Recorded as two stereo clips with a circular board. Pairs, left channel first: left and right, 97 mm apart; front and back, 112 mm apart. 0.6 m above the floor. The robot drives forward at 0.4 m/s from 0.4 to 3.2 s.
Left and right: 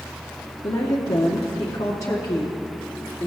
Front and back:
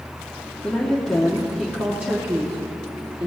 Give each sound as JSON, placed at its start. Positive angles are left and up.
{"t": 0.6, "sound": "a woman speaking", "azimuth_deg": 70, "distance_m": 1.1}